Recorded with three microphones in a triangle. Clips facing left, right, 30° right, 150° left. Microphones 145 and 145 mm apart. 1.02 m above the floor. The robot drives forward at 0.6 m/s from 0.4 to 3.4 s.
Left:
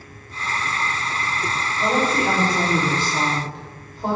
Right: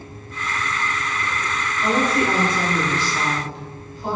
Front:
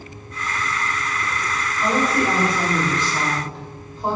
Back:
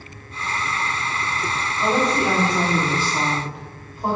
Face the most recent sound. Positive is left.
turn(degrees=70)